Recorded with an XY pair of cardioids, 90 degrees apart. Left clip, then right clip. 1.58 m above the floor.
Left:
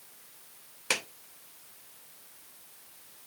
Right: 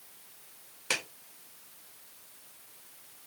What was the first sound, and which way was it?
A clap, 20° left.